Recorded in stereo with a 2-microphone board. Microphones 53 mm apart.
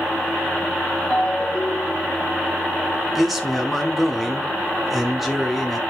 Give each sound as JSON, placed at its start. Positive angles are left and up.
{"t": 1.1, "sound": "a ringtone", "side_deg": 10, "distance_m": 1.1}
{"t": 3.1, "sound": "a man speaking", "side_deg": -5, "distance_m": 2.0}